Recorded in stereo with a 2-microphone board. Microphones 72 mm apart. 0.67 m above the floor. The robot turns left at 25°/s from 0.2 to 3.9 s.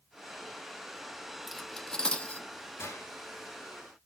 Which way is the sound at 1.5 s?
Centre (ahead or behind).